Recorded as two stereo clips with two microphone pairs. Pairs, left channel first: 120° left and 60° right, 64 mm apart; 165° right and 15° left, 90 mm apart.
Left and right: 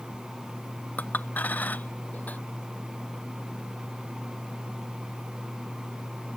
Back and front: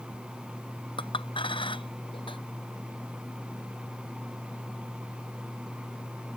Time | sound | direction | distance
1.0 | a clink | straight behind | ?